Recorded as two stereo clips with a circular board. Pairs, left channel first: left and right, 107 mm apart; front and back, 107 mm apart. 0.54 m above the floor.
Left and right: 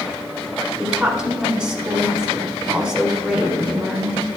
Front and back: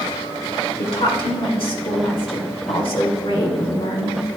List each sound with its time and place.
0.8 s a woman speaking: 10° right, 1.6 m